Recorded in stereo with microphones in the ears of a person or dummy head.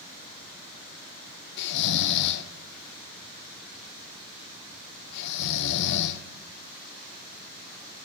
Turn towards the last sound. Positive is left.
turn(degrees=65)  # may be behind; listen again after turning